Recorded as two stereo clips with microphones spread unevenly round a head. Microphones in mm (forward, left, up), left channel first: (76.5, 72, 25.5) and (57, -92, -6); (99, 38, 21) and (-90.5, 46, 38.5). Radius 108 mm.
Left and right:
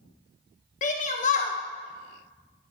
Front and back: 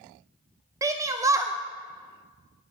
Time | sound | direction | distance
0.8 | a shout | 105° left | 0.5 m